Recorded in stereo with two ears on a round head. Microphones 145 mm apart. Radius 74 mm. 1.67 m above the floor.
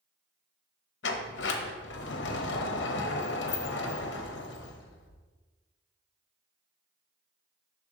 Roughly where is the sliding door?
Left.